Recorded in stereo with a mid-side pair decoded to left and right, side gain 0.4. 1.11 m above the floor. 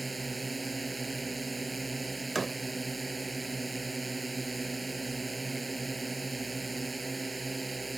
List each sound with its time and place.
0.0 s a drone: 25° right
2.4 s a door slam: 35° right